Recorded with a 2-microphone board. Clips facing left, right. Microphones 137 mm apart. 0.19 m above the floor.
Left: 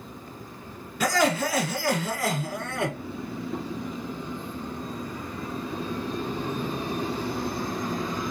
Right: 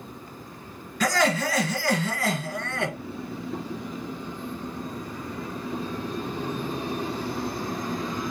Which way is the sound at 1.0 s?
5° left (ahead or behind).